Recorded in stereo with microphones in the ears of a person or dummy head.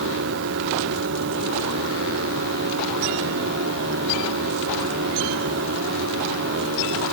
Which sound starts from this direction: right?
A machine running, at 0.0 s.